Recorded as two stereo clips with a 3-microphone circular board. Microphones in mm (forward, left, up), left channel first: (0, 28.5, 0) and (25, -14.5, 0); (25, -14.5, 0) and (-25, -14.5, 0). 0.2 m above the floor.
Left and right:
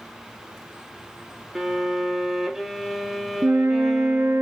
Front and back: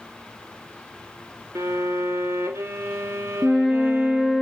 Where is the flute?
90° right, 0.5 m.